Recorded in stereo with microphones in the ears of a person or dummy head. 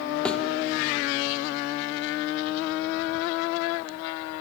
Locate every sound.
0.2 s a thud: 10° left (ahead or behind), 1.7 m